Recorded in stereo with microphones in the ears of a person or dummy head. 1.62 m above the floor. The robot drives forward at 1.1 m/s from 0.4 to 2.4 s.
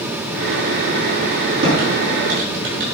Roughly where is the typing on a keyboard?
Right.